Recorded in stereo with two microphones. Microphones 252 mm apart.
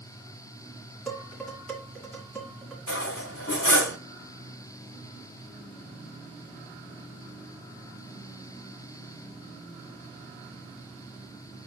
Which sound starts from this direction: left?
Cutlery clinking, at 2.9 s.